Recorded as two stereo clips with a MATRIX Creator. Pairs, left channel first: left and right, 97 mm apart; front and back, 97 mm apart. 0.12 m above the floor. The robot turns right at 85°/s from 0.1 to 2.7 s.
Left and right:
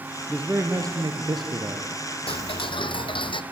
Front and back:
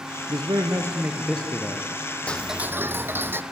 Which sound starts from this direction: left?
Ticking, at 2.3 s.